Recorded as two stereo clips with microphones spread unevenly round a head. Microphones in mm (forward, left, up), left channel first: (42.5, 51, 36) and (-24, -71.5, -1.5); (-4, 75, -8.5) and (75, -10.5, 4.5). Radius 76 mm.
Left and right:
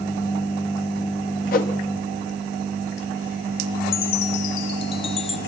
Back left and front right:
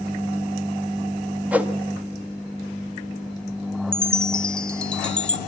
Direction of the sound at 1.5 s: 35° left.